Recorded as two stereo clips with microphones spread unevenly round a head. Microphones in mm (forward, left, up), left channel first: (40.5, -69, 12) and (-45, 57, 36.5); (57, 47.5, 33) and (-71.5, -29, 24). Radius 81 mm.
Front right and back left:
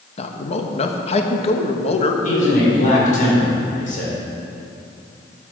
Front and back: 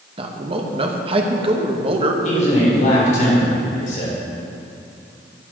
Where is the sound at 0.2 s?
100° right, 1.2 m.